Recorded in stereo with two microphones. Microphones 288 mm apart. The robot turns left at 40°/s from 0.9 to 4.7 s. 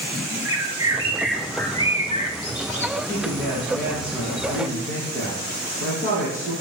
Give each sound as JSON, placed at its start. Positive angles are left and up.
{"t": 0.5, "sound": "a bird", "azimuth_deg": -165, "distance_m": 1.7}
{"t": 3.0, "sound": "a man speaking", "azimuth_deg": 30, "distance_m": 3.5}